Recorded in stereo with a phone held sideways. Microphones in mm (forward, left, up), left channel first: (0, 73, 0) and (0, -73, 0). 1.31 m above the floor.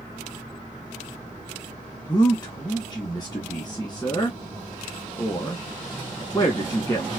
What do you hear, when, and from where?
2.1 s a man speaking: 30° left (ahead or behind), 1.2 m